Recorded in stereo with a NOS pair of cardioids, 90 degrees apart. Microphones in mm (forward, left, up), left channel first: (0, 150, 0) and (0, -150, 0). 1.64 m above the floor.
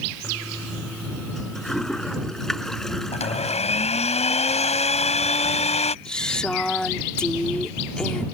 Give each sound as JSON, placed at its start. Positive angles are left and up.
{"t": 0.2, "sound": "a toilet flushing", "azimuth_deg": 0}
{"t": 3.1, "sound": "a blender", "azimuth_deg": 20}
{"t": 6.0, "sound": "a woman speaking", "azimuth_deg": 0}